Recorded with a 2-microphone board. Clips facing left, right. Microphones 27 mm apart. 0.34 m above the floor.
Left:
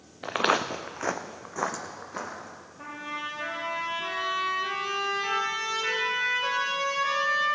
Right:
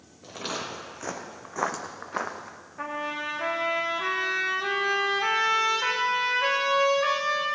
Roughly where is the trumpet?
Right.